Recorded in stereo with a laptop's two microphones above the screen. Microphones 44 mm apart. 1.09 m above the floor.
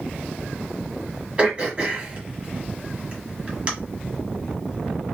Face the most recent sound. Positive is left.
turn(degrees=-30)  # may be behind; listen again after turning